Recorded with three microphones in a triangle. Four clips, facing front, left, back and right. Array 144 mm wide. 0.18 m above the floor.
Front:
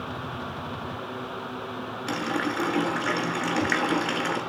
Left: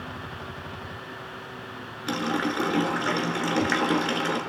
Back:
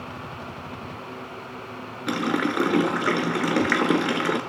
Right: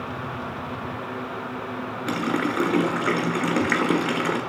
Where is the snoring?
No snoring in this recording.